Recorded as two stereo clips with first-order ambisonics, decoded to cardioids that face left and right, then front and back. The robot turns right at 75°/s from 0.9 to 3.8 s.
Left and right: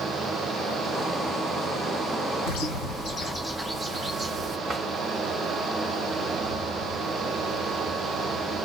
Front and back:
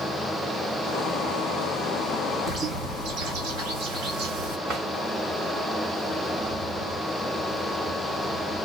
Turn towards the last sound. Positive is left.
turn(degrees=-155)